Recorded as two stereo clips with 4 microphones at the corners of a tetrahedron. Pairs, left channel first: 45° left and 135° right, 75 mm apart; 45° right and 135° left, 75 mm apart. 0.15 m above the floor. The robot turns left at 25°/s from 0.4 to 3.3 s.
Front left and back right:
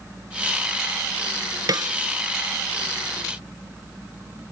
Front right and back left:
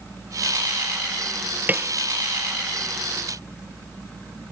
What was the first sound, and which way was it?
A snare drum, 160° right.